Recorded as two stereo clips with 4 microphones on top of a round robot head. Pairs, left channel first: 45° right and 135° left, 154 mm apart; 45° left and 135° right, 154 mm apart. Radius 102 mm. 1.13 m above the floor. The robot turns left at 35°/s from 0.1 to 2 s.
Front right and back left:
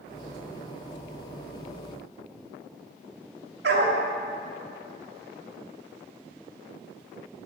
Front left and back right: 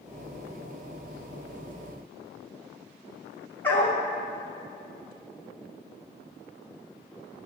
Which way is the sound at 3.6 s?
120° left.